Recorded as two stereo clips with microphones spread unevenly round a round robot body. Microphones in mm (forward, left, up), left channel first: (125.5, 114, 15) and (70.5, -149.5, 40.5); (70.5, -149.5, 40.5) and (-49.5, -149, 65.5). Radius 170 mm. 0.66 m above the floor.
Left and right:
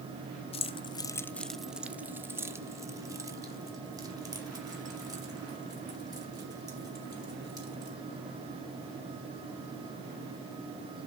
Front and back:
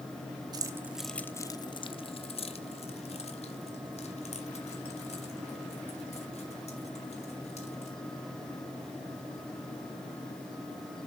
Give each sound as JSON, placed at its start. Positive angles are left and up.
{"t": 0.5, "sound": "keys jangling", "azimuth_deg": 125, "distance_m": 0.6}